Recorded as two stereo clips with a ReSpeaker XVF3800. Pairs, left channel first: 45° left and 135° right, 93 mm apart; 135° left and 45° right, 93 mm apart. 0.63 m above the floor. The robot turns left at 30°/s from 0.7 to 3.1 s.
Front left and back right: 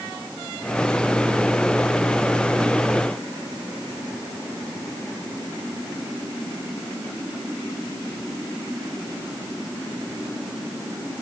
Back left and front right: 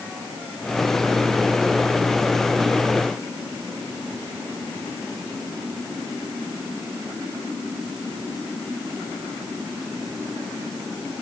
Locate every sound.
Only background noise.